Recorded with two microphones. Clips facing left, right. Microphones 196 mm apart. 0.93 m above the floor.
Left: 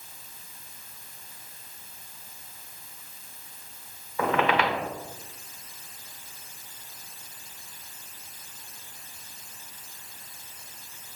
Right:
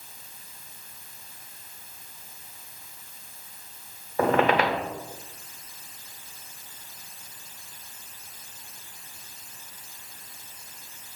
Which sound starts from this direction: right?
A squeak, at 4.2 s.